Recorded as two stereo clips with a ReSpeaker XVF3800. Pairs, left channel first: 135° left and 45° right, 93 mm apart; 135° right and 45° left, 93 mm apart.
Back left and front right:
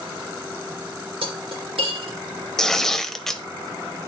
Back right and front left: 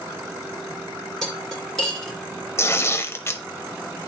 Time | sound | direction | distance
1.2 | cutlery clinking | 50° right | 2 m
2.6 | tearing paper | 145° right | 0.6 m